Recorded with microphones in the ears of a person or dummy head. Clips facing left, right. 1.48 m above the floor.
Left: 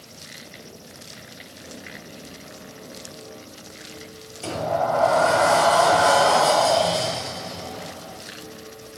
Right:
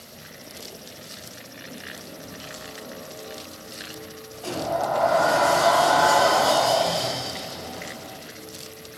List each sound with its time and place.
4.4 s a sliding door: 30° left (ahead or behind), 1.5 m